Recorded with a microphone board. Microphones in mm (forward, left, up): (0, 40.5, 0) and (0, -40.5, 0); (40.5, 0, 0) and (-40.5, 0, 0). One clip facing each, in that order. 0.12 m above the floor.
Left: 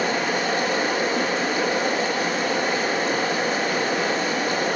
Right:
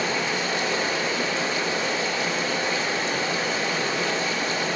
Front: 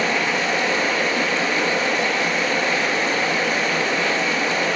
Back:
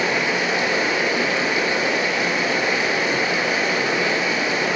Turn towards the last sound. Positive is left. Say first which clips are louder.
# left 3 dB, even
turn(degrees=110)